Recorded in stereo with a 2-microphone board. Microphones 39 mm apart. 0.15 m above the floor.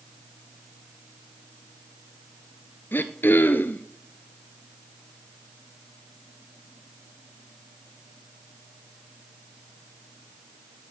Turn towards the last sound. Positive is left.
turn(degrees=55)  # may be behind; listen again after turning